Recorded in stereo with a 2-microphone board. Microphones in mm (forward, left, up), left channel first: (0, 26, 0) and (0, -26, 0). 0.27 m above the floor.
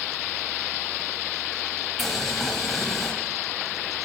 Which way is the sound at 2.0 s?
5° left (ahead or behind).